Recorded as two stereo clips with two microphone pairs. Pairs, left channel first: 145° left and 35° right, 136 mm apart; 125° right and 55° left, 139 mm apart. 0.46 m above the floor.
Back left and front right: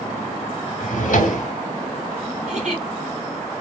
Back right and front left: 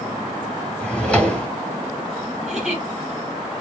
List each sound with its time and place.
0.8 s a drawer: 150° left, 1.0 m
2.4 s a giggle: 35° right, 2.5 m